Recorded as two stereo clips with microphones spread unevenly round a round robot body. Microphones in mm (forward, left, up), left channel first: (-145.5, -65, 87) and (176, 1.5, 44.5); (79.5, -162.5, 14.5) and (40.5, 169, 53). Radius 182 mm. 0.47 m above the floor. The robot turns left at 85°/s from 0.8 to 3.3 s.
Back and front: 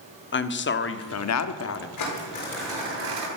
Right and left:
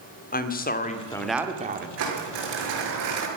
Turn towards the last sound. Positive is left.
turn(degrees=40)